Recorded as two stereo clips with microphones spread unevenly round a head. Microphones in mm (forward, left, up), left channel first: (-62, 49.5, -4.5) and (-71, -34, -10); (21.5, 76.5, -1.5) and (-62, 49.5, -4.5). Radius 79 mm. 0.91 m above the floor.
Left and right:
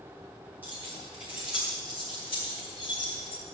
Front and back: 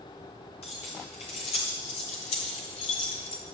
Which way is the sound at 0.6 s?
15° right.